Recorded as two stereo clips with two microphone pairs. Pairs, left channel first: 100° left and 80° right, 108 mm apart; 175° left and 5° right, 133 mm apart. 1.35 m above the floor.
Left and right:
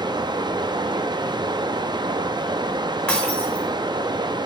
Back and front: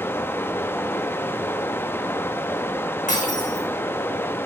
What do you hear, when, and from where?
0.0 s running water: 115° right, 0.9 m
3.1 s breaking glass: 175° left, 4.5 m